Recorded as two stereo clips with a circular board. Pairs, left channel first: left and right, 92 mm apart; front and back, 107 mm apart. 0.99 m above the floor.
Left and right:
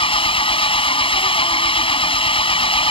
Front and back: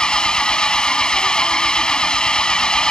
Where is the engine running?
85° left.